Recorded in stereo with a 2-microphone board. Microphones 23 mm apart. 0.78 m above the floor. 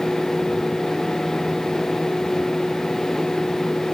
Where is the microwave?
I don't hear a microwave.